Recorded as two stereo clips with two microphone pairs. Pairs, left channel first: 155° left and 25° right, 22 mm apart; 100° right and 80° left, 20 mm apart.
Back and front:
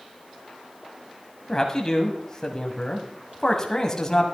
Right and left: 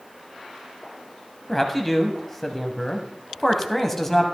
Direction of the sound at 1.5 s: 165° right.